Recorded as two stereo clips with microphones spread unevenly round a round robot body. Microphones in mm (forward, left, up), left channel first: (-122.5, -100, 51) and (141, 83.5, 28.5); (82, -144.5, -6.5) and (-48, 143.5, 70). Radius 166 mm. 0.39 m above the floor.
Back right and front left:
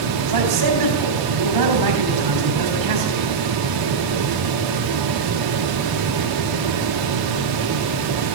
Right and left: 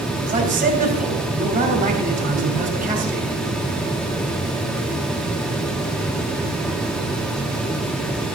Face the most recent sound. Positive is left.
turn(degrees=45)